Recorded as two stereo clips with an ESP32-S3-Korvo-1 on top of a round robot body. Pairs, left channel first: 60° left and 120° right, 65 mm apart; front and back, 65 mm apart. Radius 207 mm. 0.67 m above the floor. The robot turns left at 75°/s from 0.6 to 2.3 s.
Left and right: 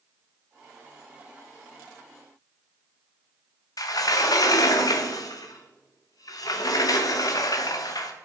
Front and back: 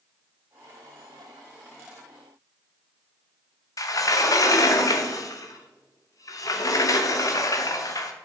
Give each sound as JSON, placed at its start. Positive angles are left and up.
{"t": 3.8, "sound": "a sliding door", "azimuth_deg": 30, "distance_m": 0.9}